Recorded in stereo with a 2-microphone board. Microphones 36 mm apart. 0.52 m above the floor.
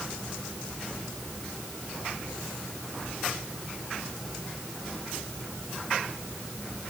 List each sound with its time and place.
Only background noise.